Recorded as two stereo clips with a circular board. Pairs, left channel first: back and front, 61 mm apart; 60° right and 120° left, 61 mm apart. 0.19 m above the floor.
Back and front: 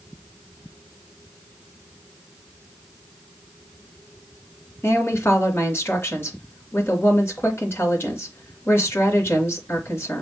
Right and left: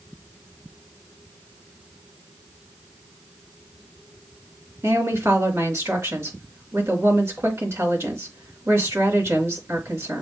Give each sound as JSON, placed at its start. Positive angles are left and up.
{"t": 4.8, "sound": "a woman speaking", "azimuth_deg": 145, "distance_m": 2.5}